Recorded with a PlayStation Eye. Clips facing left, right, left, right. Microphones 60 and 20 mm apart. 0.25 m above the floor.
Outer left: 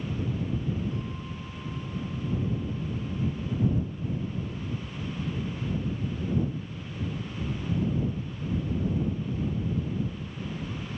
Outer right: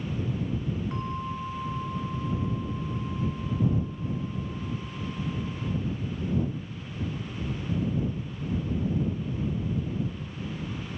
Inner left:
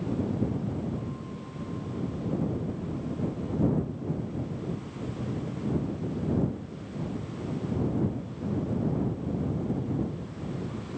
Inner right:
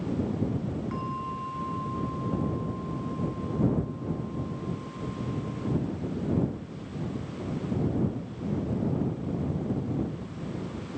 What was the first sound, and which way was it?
A bell, 65° right (ahead or behind).